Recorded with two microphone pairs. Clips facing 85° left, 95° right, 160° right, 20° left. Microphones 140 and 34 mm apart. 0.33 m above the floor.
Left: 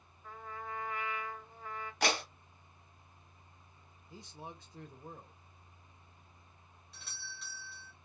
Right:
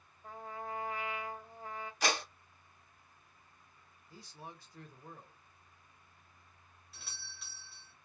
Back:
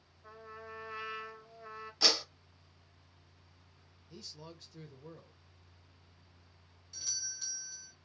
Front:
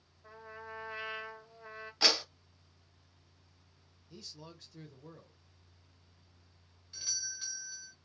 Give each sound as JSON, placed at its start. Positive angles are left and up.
{"t": 0.2, "sound": "a trumpet", "azimuth_deg": -65, "distance_m": 1.6}
{"t": 2.0, "sound": "a clap", "azimuth_deg": 80, "distance_m": 1.5}
{"t": 4.1, "sound": "a man speaking", "azimuth_deg": 115, "distance_m": 0.9}
{"t": 6.9, "sound": "a doorbell", "azimuth_deg": -5, "distance_m": 1.5}